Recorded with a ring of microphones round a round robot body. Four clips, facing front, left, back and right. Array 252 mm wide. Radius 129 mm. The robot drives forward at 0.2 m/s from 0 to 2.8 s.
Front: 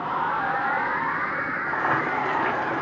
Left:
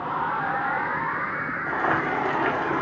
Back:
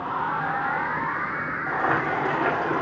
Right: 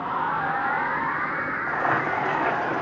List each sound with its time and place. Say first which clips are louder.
1.7 s boiling: even, back 1 dB; 140° left, 1.7 m; by 2.8 s 145° left, 1.8 m